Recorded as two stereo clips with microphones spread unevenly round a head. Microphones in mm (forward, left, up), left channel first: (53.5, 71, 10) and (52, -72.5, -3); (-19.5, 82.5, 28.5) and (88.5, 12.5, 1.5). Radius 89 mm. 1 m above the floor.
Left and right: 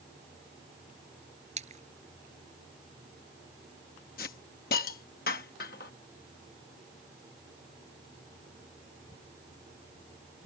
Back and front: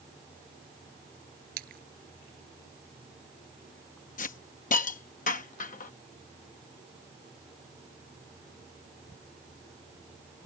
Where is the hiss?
130° left.